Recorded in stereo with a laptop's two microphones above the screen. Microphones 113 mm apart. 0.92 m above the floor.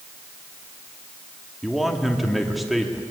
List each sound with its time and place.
1.6 s a man speaking: centre (ahead or behind), 1.9 m